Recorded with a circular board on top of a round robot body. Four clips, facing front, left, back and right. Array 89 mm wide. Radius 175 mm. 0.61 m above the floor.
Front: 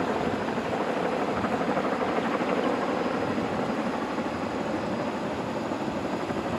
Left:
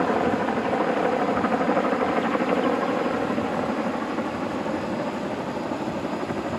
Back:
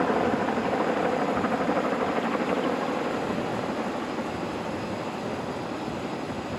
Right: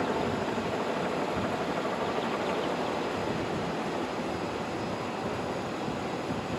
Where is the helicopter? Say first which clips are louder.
Left 7 dB, back 3 dB; 115° left; by 6.6 s 60° left.